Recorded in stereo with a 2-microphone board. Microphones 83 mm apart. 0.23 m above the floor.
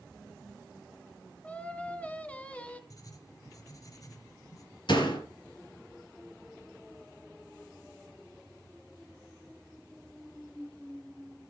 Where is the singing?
20° left (ahead or behind), 1.1 m.